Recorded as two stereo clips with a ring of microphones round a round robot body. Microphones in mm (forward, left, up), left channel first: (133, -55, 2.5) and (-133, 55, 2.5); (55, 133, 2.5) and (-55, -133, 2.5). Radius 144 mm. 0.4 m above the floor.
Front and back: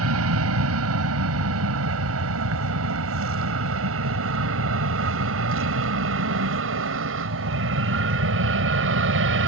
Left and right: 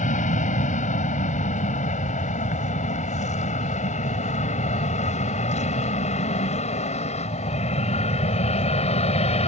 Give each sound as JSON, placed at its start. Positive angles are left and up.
{"t": 0.0, "sound": "an aircraft", "azimuth_deg": 130}